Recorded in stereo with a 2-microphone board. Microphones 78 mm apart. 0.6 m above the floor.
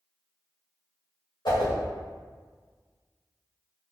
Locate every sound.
1.4 s a whoosh: 65° left (ahead or behind), 1.8 m